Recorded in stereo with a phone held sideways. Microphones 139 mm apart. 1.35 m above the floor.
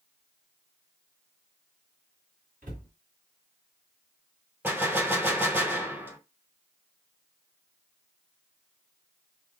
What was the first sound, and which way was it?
A cupboard door, 80° right.